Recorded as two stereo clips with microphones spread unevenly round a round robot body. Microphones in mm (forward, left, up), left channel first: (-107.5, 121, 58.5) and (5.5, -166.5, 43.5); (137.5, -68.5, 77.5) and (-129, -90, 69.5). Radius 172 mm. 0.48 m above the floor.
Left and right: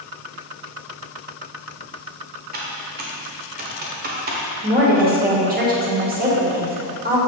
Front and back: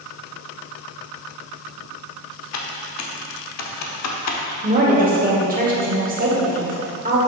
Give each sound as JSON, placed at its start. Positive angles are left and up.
{"t": 2.5, "sound": "typing on a keyboard", "azimuth_deg": -10, "distance_m": 0.9}
{"t": 4.6, "sound": "a woman speaking", "azimuth_deg": -125, "distance_m": 2.0}